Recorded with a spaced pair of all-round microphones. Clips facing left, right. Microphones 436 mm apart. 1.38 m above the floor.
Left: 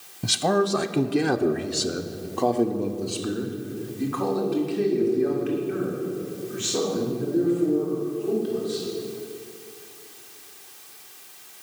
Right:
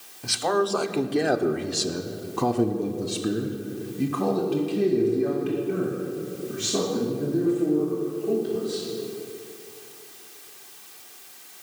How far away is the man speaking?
About 0.9 m.